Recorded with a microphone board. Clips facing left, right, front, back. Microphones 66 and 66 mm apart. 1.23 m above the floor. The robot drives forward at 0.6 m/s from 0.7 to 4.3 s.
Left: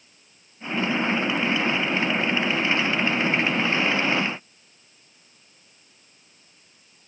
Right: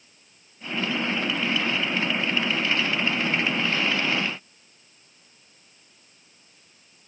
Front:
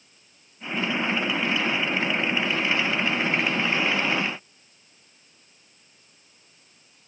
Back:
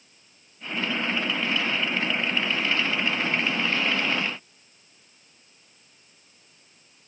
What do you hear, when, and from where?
Only background noise.